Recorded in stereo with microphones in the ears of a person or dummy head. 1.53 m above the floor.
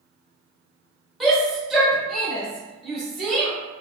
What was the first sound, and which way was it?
A shout, 10° left (ahead or behind).